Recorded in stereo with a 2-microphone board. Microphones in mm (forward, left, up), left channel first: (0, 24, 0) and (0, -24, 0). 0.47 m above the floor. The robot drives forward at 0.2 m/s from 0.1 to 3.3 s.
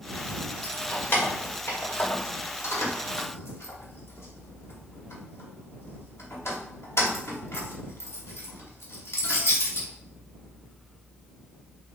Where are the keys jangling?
45° left (ahead or behind), 1.0 m; by 9.9 s 65° left (ahead or behind), 0.8 m.